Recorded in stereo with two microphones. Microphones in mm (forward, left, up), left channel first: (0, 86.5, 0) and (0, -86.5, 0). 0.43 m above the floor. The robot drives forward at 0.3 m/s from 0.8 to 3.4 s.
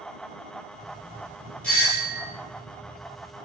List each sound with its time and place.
1.6 s a doorbell: 5° left (ahead or behind), 3 m